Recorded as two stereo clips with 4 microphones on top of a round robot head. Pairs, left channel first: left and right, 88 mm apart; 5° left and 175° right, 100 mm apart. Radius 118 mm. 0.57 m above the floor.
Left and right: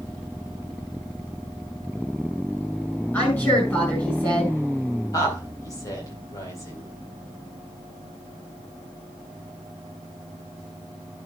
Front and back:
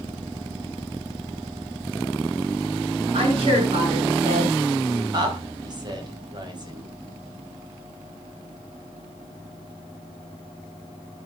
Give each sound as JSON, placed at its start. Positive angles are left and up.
{"t": 3.1, "sound": "a woman speaking", "azimuth_deg": 160, "distance_m": 7.0}
{"t": 5.1, "sound": "a woman speaking", "azimuth_deg": 140, "distance_m": 4.0}